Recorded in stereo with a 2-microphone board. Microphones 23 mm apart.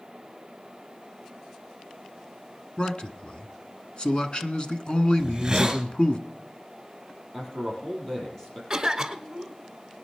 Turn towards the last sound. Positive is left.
turn(degrees=-15)  # may be behind; listen again after turning